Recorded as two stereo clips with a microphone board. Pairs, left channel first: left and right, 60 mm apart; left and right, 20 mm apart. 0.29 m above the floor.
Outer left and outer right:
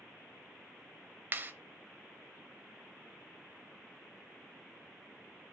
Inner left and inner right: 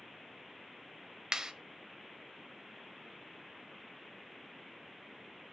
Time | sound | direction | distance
1.3 | a clap | 35° right (ahead or behind) | 1.0 m